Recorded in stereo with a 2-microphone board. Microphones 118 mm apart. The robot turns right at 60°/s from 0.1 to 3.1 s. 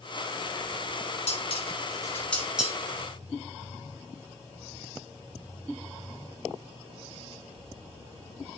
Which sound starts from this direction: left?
Dishes clattering, at 1.3 s.